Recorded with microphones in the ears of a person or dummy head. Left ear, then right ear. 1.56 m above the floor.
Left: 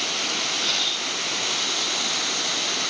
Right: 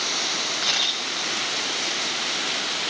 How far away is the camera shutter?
About 6 m.